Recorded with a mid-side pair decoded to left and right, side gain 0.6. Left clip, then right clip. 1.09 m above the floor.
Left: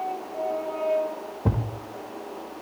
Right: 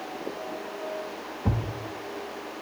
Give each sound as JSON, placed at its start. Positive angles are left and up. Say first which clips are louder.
{"t": 1.4, "sound": "a thud", "louder": "left 2 dB", "azimuth_deg": 40, "distance_m": 1.7}